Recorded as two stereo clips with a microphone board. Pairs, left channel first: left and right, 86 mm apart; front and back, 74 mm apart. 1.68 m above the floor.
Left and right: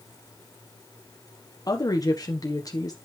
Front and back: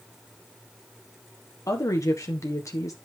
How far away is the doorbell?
No doorbell in this recording.